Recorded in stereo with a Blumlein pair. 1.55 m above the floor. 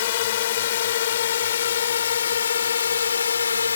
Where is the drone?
55° left; by 3.8 s 70° left.